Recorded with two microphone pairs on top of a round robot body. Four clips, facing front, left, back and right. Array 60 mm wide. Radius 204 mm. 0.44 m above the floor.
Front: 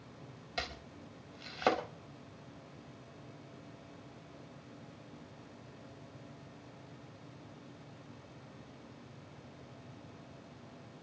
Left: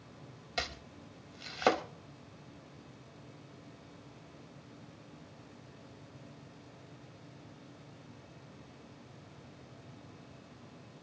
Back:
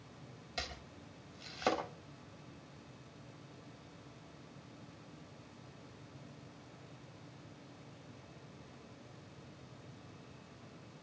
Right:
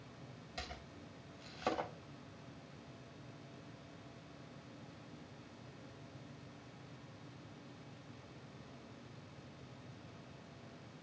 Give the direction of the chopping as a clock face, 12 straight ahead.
10 o'clock.